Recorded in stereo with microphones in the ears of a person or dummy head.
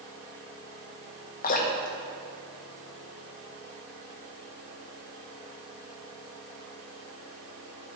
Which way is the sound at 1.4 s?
40° left (ahead or behind).